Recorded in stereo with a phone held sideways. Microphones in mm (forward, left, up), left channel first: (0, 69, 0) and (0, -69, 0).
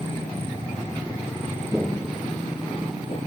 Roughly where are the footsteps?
Centre.